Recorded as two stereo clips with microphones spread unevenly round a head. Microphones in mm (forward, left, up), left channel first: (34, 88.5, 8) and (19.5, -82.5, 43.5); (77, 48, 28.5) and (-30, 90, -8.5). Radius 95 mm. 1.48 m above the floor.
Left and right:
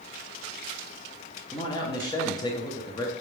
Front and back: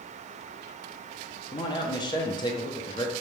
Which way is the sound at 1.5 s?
15° left.